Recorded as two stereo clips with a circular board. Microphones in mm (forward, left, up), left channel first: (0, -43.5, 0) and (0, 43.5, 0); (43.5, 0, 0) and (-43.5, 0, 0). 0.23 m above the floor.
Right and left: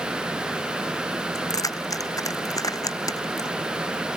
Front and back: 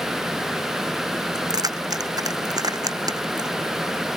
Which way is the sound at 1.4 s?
135° right.